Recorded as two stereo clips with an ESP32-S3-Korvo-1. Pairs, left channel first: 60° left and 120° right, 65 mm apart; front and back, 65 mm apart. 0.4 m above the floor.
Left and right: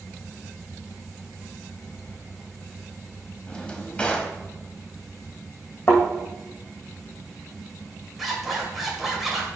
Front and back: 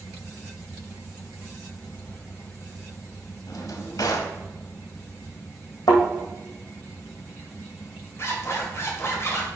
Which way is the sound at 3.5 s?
10° right.